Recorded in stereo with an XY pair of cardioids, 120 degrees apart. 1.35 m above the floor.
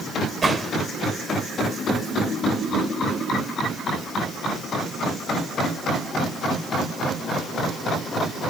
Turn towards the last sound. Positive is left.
turn(degrees=-25)